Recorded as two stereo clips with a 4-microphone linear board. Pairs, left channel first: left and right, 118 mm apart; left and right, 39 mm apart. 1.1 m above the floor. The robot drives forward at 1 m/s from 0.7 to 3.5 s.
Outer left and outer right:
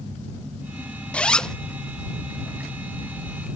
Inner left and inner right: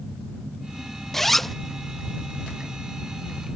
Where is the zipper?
10° left (ahead or behind); by 1.6 s 5° left (ahead or behind).